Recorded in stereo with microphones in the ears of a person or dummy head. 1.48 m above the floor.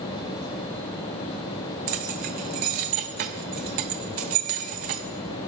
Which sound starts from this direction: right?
Keys jangling, at 1.9 s.